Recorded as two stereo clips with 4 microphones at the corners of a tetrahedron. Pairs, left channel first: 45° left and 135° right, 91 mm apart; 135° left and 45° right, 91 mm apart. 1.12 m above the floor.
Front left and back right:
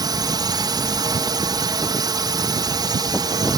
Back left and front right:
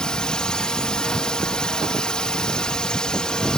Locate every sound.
0.0 s a drone: 145° right